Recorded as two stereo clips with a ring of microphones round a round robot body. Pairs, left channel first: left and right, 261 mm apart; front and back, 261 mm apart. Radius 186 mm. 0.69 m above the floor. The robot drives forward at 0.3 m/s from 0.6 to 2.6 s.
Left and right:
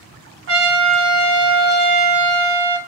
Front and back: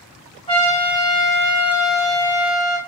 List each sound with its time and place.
0.5 s a trumpet: 70° right, 1.0 m; by 2.8 s 115° right, 1.0 m